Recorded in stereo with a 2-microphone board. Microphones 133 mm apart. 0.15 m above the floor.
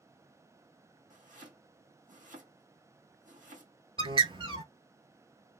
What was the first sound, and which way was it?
Chopping, 70° right (ahead or behind).